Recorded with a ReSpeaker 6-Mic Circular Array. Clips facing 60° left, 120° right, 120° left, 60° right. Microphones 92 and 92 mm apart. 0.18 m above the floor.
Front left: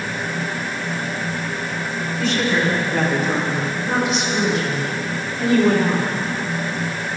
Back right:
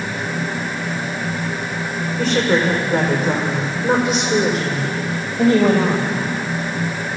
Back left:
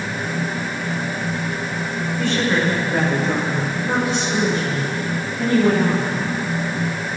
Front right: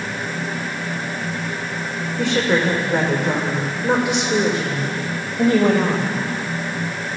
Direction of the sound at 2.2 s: 70° right.